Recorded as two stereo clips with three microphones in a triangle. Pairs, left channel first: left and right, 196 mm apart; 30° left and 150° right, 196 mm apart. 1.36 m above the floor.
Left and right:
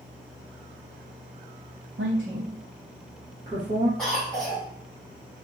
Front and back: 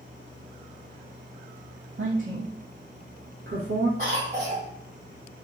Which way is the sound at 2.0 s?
120° right.